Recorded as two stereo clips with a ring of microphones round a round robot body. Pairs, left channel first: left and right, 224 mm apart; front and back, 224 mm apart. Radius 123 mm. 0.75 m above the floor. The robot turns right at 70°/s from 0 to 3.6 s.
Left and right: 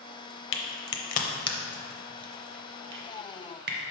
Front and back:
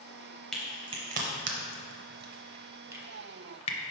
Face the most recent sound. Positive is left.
turn(degrees=-55)